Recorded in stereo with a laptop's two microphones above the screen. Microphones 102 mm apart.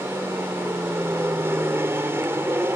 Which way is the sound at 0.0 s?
25° right (ahead or behind).